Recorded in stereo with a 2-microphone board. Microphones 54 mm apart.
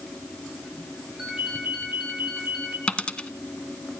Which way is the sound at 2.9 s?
20° left (ahead or behind).